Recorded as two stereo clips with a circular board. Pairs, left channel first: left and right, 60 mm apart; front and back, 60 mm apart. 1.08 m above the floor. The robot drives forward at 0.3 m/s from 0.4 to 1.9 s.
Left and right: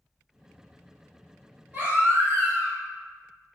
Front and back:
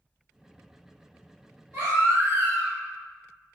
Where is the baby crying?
145° right, 1.6 m; by 2.8 s 150° right, 1.7 m.